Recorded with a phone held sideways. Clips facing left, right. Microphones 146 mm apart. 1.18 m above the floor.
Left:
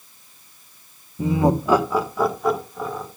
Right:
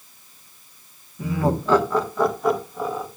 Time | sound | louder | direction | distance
1.2 | laughter | left 4 dB | 25° left (ahead or behind) | 1.0 m